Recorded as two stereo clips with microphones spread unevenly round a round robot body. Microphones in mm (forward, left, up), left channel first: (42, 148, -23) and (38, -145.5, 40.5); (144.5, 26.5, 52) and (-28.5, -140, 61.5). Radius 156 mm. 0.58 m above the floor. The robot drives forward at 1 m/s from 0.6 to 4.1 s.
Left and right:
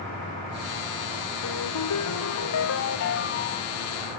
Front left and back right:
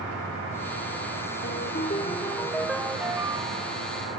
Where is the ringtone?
90° left; by 3.9 s 150° left.